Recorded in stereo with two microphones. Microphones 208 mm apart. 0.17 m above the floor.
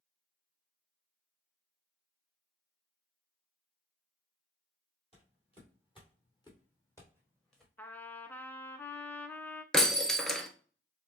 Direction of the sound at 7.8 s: 10° left (ahead or behind).